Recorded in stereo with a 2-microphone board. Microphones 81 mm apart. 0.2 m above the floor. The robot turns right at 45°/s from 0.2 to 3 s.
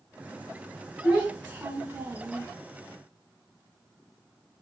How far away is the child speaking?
About 1.1 m.